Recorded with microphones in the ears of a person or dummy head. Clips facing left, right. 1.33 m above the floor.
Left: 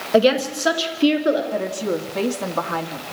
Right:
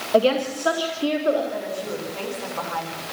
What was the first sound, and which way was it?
A woman speaking, 20° left (ahead or behind).